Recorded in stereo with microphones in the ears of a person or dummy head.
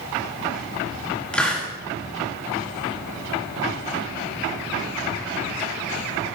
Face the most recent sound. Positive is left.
turn(degrees=5)  # may be behind; listen again after turning